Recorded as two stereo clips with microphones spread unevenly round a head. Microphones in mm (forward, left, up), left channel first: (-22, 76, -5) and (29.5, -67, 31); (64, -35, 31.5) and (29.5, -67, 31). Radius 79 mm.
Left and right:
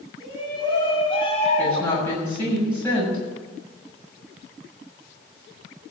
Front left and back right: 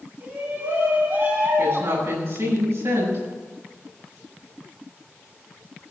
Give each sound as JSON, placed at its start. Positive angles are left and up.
{"t": 0.2, "sound": "a shout", "azimuth_deg": 180, "distance_m": 5.5}
{"t": 1.6, "sound": "a woman speaking", "azimuth_deg": -170, "distance_m": 6.5}